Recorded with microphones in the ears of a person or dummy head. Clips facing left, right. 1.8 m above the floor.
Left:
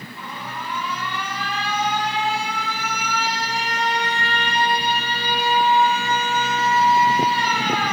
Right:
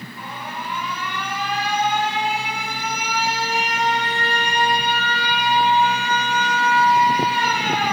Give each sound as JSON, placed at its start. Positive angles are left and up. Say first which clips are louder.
{"t": 0.2, "sound": "an alarm", "louder": "right 1 dB", "side_deg": -15, "distance_m": 5.5}